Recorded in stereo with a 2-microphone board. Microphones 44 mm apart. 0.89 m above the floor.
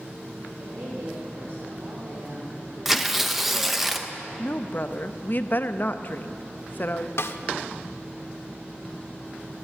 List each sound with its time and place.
0.6 s a woman speaking: 70° right (ahead or behind), 4 m; by 3.9 s 35° right (ahead or behind), 1.9 m
2.9 s tearing paper: 5° right (ahead or behind), 0.8 m
4.4 s a woman speaking: 45° left (ahead or behind), 0.6 m
7.2 s a snare drum: 65° left (ahead or behind), 0.9 m